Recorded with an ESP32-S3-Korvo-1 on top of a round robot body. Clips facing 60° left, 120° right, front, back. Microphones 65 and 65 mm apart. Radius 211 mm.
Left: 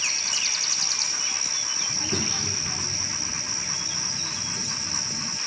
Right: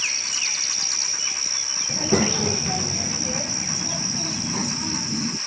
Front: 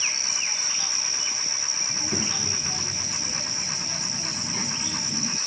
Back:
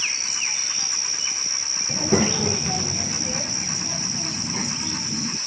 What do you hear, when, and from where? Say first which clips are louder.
1.9 s a child speaking: right 10 dB, back 11 dB; 160° right; by 5.4 s 95° right